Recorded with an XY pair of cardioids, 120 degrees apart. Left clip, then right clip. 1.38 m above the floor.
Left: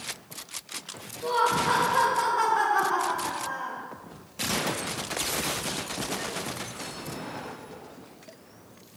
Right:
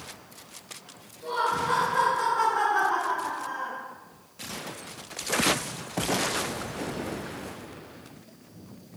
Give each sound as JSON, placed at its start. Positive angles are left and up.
{"t": 1.2, "sound": "laughter", "azimuth_deg": 40, "distance_m": 1.4}